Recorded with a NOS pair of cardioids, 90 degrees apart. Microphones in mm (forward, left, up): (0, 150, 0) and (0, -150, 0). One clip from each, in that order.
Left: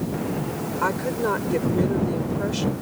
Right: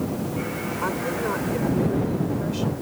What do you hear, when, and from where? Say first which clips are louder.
0.8 s a woman speaking: left 3 dB; 45° left